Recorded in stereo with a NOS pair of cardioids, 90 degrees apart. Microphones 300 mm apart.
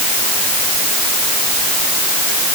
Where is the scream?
I don't hear a scream.